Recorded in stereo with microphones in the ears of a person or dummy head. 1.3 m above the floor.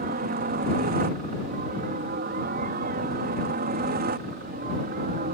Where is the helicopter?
40° right (ahead or behind); by 5.3 s 45° right (ahead or behind).